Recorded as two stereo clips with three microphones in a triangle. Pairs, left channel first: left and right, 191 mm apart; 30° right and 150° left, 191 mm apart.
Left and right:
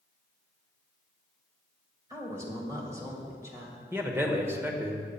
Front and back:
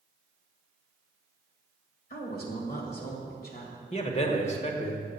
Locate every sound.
2.1 s a woman speaking: 20° right, 1.8 m
3.9 s a man speaking: 20° right, 1.1 m